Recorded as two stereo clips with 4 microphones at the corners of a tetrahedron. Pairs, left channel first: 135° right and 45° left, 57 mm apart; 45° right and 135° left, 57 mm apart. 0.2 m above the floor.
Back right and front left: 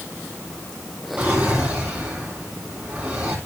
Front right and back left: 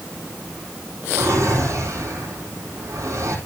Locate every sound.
1.2 s a drawer: 105° left, 4 m